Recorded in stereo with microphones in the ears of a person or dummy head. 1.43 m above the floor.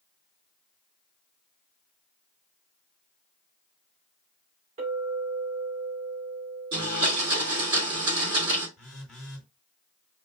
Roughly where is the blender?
Centre.